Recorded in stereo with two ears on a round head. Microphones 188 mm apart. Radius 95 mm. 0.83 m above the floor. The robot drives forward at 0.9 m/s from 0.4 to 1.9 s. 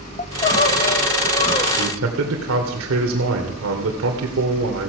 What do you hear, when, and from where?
0.2 s crying: 35° left (ahead or behind), 1.0 m; by 1.7 s 25° left (ahead or behind), 1.2 m
1.8 s a man speaking: 65° right (ahead or behind), 2.5 m; by 4.9 s 70° right (ahead or behind), 2 m